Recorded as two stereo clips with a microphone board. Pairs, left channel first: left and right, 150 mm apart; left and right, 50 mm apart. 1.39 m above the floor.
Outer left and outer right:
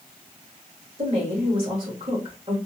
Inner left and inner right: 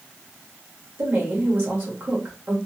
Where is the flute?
I don't hear a flute.